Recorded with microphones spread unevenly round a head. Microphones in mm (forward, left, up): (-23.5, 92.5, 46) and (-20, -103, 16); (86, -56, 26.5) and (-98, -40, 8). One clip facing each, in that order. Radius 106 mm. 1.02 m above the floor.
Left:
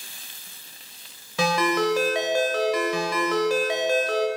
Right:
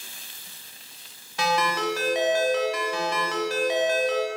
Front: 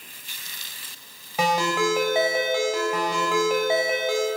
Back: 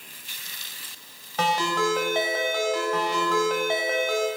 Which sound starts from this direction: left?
A ringtone, at 1.4 s.